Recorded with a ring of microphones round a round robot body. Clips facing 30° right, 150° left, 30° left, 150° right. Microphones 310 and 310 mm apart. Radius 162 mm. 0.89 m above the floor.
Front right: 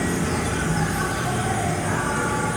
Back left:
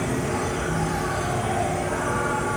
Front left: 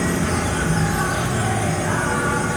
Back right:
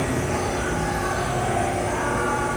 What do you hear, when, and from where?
0.0 s an insect: 20° left, 3 m